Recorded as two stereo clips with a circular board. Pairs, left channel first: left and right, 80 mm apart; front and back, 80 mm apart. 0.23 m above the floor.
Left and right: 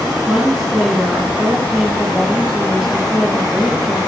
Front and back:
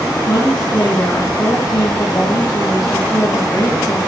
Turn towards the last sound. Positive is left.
turn(degrees=-10)